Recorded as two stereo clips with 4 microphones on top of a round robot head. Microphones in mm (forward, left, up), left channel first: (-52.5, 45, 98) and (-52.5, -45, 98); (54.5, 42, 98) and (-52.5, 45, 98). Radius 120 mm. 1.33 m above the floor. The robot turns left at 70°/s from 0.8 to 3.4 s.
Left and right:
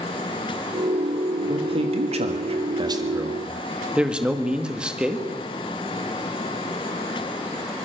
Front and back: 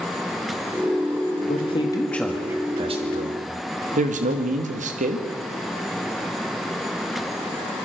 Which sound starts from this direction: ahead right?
A man speaking, at 1.5 s.